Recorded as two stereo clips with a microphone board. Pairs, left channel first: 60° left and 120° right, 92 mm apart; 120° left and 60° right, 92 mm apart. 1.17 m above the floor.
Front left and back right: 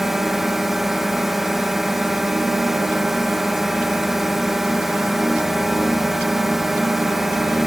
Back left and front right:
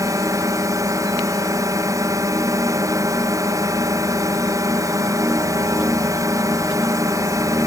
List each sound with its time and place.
0.0 s a drone: 35° right